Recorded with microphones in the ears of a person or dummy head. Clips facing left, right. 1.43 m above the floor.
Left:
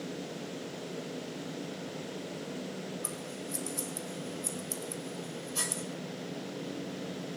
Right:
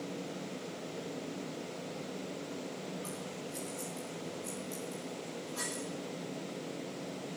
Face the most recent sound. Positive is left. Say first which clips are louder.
# left 1 dB
turn(degrees=50)  # may be behind; listen again after turning